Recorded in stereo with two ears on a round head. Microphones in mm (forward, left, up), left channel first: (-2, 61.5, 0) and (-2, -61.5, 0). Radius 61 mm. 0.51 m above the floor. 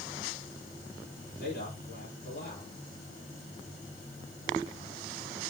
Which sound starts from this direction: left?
A man speaking, at 1.4 s.